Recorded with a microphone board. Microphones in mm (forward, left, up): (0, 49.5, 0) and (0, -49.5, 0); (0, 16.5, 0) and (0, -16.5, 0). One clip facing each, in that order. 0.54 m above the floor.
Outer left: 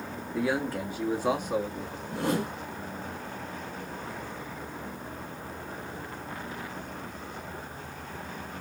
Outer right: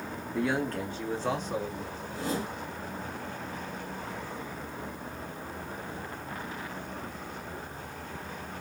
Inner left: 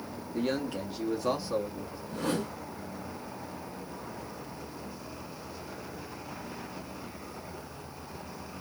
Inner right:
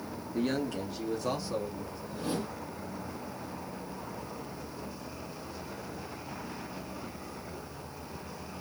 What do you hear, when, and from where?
0.3 s a man speaking: 5° left (ahead or behind), 1.2 m; by 2.0 s 15° left (ahead or behind), 1.7 m
2.1 s a whoosh: 60° left (ahead or behind), 1.8 m